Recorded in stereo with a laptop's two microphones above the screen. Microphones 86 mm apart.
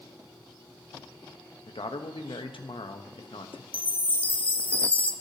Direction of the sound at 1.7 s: 80° left.